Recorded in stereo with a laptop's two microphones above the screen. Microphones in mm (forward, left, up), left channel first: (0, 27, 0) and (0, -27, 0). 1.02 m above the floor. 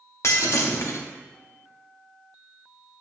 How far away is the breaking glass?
About 0.8 m.